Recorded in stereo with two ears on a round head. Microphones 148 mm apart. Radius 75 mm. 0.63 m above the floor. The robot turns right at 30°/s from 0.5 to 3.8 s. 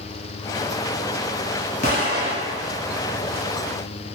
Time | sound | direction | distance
1.8 | an explosion | 45° left (ahead or behind) | 1.5 m